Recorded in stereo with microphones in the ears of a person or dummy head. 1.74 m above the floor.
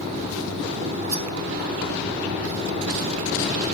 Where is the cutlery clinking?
15° right (ahead or behind), 2.0 m.